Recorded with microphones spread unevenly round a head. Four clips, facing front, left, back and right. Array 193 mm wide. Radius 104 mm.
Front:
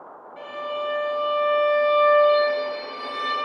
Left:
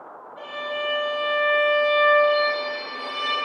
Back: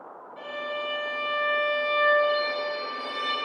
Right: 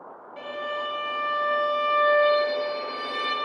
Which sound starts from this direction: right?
A violin, at 0.4 s.